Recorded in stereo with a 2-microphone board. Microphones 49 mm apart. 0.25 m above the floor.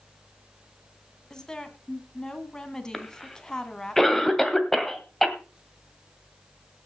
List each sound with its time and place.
1.3 s a woman speaking: 15° left (ahead or behind), 1.7 m
2.9 s a cough: 10° left (ahead or behind), 1.7 m